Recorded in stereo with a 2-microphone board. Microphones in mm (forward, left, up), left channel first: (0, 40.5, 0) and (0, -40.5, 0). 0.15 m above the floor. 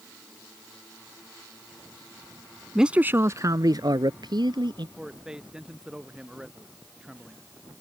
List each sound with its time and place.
2.8 s a man speaking: 5° right (ahead or behind); by 4.9 s 70° right (ahead or behind)
5.0 s a man speaking: 10° right (ahead or behind)